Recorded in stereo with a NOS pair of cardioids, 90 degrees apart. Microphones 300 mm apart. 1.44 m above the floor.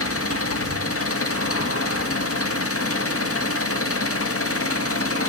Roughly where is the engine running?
Ahead left.